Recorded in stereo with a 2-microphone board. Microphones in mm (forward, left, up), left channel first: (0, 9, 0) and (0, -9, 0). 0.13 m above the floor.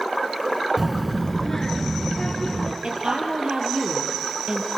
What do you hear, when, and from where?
0.8 s a child speaking: 5° right (ahead or behind), 0.8 m; by 2.7 s 50° left (ahead or behind), 1.7 m
2.8 s a woman speaking: 60° right (ahead or behind), 2.5 m